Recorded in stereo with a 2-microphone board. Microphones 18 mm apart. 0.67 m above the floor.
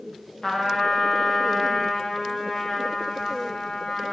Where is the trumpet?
30° left (ahead or behind), 0.8 m.